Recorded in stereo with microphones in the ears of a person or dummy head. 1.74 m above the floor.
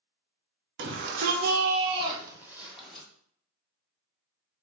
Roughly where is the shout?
Right.